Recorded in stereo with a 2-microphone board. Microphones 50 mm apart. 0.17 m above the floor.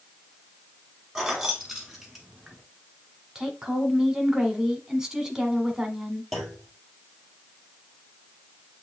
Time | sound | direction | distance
1.1 | keys jangling | 5° right (ahead or behind) | 1.0 m
3.4 | a woman speaking | 15° right (ahead or behind) | 1.1 m
6.3 | a clunk | centre (ahead or behind) | 1.4 m